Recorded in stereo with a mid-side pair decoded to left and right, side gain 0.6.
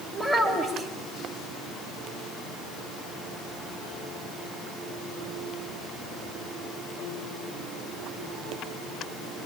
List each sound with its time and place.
0.1 s a child speaking: 5° left, 5.5 m